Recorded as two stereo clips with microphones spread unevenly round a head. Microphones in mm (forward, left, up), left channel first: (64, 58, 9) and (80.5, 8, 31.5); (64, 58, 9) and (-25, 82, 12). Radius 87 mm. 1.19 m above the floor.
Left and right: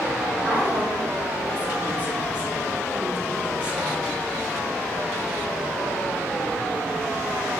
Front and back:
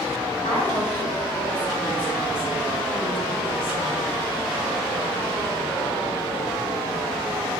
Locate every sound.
0.4 s a woman speaking: 15° right, 3.5 m